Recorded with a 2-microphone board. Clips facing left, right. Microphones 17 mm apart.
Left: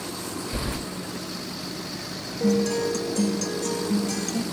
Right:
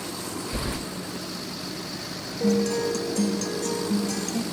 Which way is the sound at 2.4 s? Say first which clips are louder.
Left 1 dB; 5° left (ahead or behind).